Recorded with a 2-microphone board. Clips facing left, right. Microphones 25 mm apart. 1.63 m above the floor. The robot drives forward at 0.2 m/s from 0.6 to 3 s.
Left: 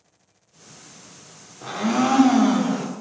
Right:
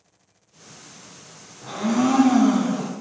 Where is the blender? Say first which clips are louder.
Even; 60° left (ahead or behind), 0.6 m; by 2.9 s 70° left (ahead or behind), 0.6 m.